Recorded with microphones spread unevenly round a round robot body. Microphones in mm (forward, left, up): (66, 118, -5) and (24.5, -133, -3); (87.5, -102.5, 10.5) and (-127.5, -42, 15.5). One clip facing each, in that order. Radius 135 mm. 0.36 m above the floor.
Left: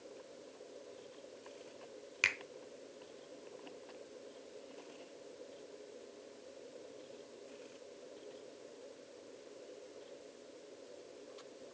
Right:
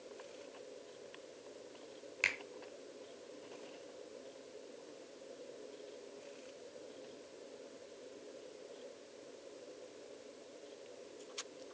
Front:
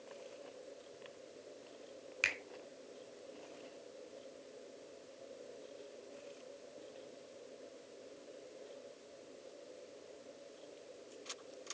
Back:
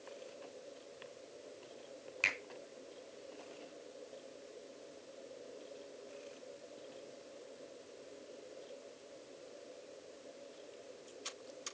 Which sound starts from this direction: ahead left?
A finger snap, at 2.2 s.